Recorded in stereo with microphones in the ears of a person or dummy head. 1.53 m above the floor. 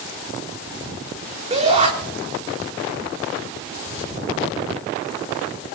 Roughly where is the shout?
Right.